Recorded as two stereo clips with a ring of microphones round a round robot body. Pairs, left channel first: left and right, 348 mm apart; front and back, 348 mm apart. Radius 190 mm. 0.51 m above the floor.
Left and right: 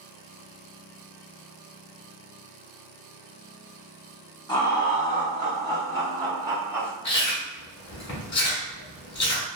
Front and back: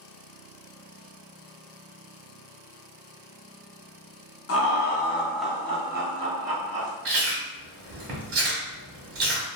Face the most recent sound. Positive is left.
turn(degrees=130)